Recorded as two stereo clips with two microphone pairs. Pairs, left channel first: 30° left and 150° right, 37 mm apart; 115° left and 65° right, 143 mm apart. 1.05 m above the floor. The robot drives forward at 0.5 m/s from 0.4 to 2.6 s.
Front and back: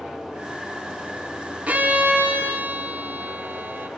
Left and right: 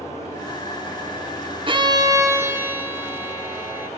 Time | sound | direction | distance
1.7 | a violin | 110° right | 0.7 m